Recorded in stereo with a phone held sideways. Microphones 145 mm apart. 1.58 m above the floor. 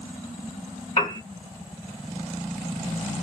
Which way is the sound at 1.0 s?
45° left (ahead or behind).